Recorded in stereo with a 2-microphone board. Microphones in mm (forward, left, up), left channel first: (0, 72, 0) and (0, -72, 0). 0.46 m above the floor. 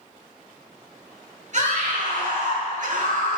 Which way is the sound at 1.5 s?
55° right (ahead or behind).